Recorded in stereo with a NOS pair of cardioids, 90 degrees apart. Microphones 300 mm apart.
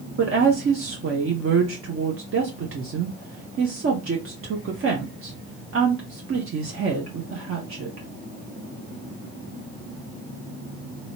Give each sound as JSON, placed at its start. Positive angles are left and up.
{"t": 0.2, "sound": "a woman speaking", "azimuth_deg": -45, "distance_m": 1.0}